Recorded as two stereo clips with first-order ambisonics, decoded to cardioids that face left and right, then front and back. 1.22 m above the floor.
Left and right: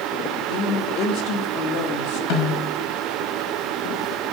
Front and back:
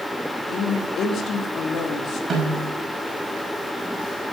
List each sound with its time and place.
0.5 s a woman speaking: 55° left, 3 m
2.3 s a snare drum: 110° left, 5 m